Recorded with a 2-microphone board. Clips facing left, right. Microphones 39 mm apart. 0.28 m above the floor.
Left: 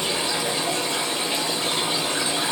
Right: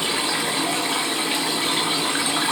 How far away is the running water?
About 1.4 m.